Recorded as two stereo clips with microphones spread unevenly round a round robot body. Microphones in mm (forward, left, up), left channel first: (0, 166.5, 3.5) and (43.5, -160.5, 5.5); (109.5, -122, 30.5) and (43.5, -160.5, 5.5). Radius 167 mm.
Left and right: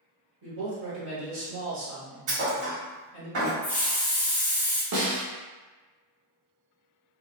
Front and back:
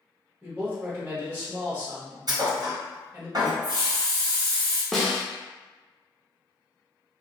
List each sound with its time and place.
0.4 s a man speaking: 120° right, 1.4 m
2.3 s a thud: 115° right, 1.4 m
3.6 s a hiss: 175° right, 0.5 m
4.9 s a snare drum: 70° right, 0.8 m